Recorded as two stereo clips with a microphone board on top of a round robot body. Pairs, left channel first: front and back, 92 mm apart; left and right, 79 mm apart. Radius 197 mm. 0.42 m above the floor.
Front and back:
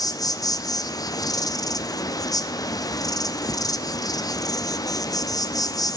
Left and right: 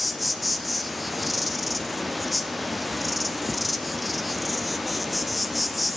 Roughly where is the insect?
Ahead.